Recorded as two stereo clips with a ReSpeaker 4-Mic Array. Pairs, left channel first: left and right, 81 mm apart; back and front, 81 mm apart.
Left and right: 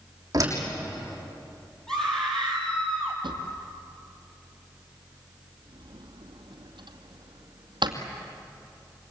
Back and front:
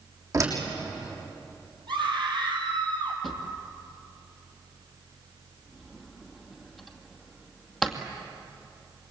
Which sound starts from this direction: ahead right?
A door slam, at 0.3 s.